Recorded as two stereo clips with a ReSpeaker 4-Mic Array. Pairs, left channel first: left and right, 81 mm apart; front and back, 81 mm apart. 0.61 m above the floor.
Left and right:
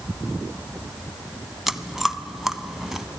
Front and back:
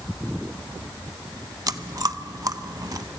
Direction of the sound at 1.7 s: 175° right.